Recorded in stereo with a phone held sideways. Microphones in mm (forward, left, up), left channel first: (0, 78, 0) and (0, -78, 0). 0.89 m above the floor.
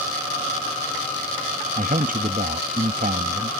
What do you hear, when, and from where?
1.8 s a man speaking: 60° right (ahead or behind)